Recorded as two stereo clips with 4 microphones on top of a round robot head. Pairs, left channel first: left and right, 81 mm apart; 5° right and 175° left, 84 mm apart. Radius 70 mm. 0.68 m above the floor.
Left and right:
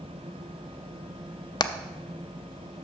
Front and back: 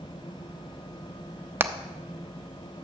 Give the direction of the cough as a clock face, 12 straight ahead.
No cough in this recording.